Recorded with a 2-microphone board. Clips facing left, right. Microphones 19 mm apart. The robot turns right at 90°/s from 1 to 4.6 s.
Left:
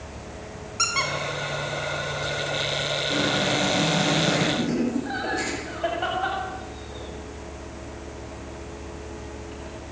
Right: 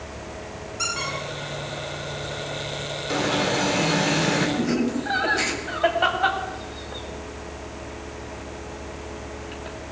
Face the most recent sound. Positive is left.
turn(degrees=-35)  # may be behind; listen again after turning